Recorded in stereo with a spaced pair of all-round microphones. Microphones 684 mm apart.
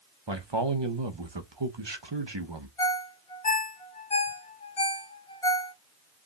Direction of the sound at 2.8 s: 50° left (ahead or behind).